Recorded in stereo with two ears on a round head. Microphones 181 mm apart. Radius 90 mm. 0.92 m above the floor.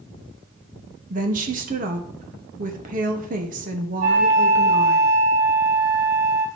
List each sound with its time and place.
1.1 s a woman speaking: 40° right (ahead or behind), 1.2 m
4.0 s a flute: 80° right, 3.5 m